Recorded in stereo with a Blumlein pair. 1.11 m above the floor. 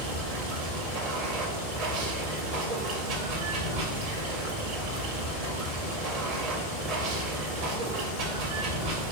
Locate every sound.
0.0 s running water: 40° right, 1.4 m